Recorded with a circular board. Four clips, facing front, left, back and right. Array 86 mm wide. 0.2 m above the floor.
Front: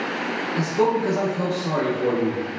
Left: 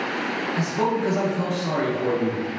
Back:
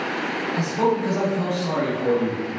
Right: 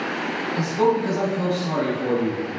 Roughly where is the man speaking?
Left.